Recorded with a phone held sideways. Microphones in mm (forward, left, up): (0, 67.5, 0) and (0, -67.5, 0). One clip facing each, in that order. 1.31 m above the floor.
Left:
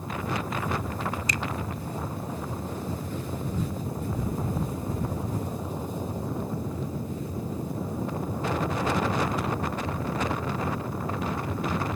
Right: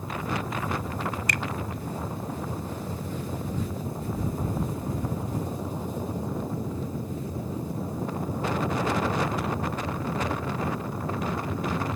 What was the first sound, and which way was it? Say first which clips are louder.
A finger snap: even; 65° right (ahead or behind).